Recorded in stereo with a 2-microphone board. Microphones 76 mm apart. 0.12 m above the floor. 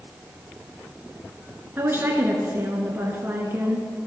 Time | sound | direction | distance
1.8 | a woman speaking | 30° right (ahead or behind) | 1.3 m